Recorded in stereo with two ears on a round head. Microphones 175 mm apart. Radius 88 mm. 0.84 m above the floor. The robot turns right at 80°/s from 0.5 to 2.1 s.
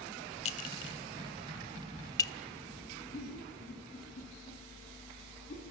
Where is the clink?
35° left (ahead or behind), 1.1 m; by 2.3 s 20° left (ahead or behind), 1.1 m.